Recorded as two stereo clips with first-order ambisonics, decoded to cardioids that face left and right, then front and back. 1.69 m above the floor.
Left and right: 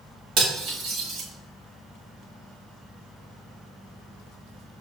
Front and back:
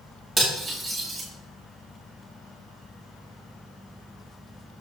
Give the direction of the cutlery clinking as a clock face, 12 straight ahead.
3 o'clock.